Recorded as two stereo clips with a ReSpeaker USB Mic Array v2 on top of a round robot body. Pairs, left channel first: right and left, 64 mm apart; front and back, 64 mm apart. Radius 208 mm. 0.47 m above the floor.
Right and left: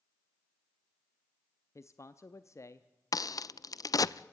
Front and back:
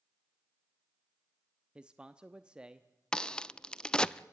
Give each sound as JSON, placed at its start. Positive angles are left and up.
{"t": 1.8, "sound": "a man speaking", "azimuth_deg": -105, "distance_m": 1.0}
{"t": 3.1, "sound": "a crack", "azimuth_deg": -75, "distance_m": 0.6}